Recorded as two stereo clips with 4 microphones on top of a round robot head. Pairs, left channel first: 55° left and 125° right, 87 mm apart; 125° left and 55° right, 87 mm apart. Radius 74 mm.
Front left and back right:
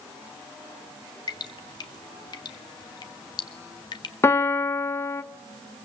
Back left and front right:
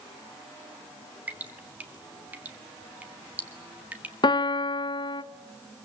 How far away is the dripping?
About 1.9 m.